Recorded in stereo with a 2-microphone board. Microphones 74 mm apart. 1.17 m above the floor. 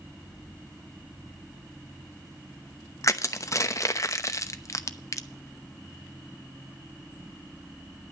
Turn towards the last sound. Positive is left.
turn(degrees=45)  # may be behind; listen again after turning